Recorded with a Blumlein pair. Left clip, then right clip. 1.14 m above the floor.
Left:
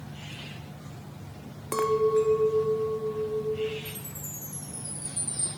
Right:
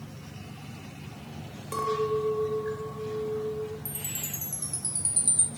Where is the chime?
55° right, 1.1 m.